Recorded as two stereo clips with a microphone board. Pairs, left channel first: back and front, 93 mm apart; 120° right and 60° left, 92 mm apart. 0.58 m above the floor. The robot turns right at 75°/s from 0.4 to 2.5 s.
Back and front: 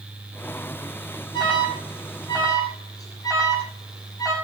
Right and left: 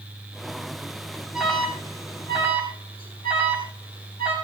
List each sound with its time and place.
1.3 s an alarm: 145° left, 8 m; by 4.3 s 130° right, 8 m